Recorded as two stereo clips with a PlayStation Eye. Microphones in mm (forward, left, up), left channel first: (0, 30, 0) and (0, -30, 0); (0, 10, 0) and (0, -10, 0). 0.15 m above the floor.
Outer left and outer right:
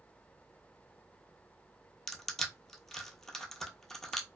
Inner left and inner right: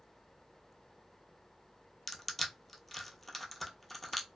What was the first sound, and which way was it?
Crushing, 10° left (ahead or behind).